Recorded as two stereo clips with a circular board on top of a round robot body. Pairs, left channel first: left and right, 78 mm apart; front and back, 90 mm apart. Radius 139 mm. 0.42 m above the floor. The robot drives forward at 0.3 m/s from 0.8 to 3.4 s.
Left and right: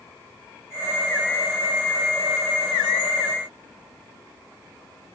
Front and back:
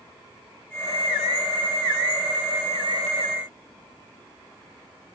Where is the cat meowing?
No cat meowing in this recording.